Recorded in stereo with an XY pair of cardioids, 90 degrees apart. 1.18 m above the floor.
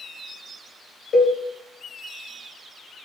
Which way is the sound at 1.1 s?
55° left.